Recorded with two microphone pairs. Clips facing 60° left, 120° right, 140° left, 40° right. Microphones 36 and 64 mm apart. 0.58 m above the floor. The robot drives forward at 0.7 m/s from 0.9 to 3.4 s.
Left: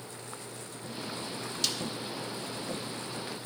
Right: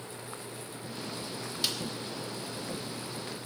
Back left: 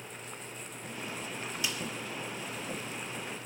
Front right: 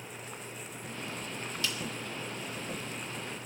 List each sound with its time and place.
1.6 s a snare drum: 175° right, 1.3 m